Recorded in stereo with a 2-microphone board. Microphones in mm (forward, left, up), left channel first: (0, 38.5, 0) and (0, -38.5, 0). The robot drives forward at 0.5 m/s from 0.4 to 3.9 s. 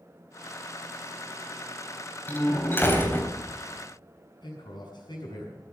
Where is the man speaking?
70° left (ahead or behind), 6.5 m.